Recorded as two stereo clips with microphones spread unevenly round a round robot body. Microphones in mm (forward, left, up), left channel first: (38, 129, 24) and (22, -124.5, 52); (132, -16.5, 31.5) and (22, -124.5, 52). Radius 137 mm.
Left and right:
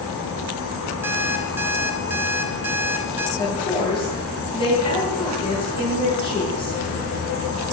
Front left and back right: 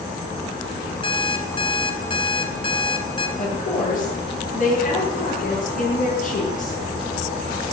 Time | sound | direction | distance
1.0 | an alarm clock | 10° right | 2.5 m
3.4 | a woman speaking | 20° left | 9.5 m